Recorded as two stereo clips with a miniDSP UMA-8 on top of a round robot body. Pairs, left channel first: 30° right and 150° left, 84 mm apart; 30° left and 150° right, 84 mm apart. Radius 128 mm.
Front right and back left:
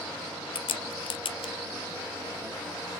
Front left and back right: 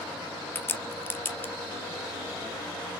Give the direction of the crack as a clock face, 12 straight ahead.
1 o'clock.